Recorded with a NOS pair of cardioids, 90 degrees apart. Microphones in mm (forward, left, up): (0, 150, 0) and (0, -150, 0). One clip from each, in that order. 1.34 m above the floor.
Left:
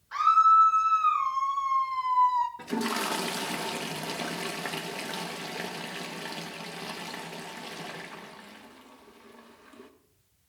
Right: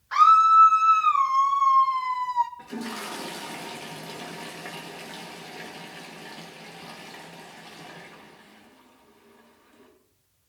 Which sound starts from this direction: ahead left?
A toilet flushing, at 2.6 s.